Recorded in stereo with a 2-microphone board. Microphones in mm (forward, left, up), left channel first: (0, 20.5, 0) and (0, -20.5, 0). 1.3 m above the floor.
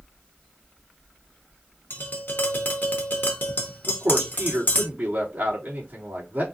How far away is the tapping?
About 1.3 m.